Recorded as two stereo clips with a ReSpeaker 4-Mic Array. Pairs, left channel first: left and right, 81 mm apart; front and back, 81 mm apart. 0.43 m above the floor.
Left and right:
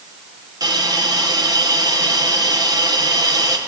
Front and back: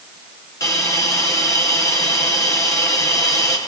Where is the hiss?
50° right, 5.5 m.